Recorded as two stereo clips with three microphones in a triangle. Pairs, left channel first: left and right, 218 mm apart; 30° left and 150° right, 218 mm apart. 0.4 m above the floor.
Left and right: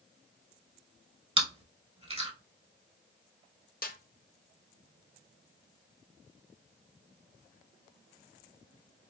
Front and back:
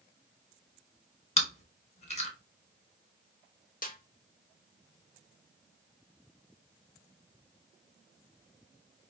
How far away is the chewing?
About 1.0 m.